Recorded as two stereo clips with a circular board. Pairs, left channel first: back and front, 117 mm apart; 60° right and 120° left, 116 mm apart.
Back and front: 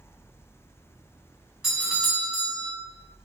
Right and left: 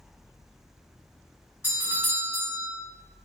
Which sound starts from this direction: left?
A doorbell, at 1.6 s.